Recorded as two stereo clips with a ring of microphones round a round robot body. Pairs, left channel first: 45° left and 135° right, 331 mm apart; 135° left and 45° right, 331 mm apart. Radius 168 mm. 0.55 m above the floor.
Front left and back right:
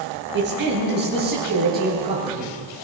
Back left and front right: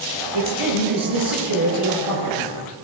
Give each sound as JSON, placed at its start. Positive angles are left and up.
{"t": 0.3, "sound": "a man speaking", "azimuth_deg": -75, "distance_m": 9.5}